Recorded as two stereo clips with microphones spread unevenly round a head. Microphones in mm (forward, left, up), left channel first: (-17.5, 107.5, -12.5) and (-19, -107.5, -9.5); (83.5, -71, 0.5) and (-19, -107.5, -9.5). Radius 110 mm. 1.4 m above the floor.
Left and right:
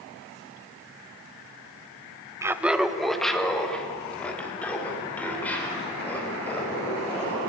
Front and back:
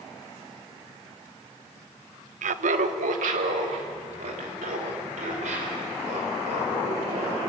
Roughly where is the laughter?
Behind.